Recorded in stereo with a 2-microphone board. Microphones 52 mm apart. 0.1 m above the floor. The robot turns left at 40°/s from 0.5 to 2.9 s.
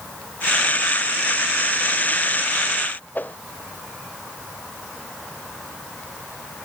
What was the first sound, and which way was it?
A whoosh, 35° left (ahead or behind).